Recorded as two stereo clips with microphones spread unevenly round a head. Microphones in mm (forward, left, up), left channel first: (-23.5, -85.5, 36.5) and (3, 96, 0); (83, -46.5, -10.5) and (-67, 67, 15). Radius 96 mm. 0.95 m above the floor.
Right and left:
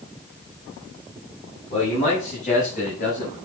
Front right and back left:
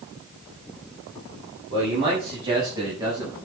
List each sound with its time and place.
1.7 s a man speaking: 155° right, 7.5 m; by 3.4 s 140° right, 8 m